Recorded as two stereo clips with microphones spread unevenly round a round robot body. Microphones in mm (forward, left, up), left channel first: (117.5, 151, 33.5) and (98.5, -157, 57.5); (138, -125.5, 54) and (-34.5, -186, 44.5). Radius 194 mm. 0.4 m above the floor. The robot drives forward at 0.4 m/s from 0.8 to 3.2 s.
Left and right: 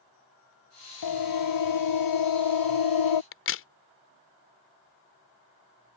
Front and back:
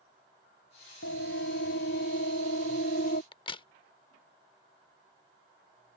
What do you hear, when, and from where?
1.0 s a siren: 70° left; by 3.2 s 85° left
3.3 s a crack: 75° left